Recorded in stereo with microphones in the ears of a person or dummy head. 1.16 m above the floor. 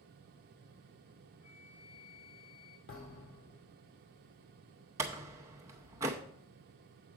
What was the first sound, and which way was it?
A flute, 45° left (ahead or behind).